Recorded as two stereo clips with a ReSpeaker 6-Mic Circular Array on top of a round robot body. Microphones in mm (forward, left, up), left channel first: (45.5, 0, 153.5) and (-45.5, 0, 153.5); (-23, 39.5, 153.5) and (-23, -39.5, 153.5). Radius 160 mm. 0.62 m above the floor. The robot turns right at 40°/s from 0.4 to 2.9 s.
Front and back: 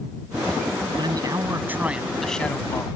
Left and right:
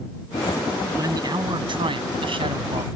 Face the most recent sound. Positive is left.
turn(degrees=-60)